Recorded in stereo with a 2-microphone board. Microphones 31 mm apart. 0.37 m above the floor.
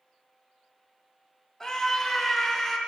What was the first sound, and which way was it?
A scream, 5° left (ahead or behind).